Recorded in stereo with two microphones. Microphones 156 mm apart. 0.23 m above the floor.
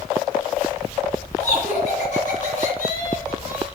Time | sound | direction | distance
1.4 | laughter | 50° left (ahead or behind) | 2.5 m